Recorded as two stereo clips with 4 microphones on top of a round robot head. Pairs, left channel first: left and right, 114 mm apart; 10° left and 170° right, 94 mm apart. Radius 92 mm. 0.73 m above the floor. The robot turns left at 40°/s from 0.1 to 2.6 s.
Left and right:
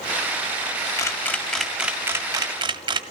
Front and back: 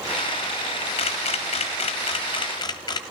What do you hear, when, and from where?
1.0 s a camera shutter: 30° left, 0.9 m; by 3.0 s 35° right, 0.9 m